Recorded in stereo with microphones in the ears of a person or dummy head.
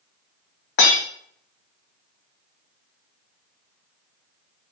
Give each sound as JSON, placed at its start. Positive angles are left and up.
{"t": 0.8, "sound": "breaking glass", "side_deg": 50, "distance_m": 2.5}